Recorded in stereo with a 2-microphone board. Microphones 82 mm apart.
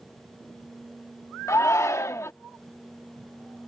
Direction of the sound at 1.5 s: 35° left (ahead or behind).